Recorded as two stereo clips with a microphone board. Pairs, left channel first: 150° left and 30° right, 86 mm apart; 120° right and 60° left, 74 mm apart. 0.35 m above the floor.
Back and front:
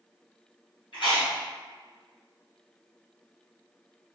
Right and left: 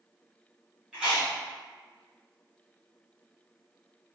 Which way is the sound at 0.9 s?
145° left.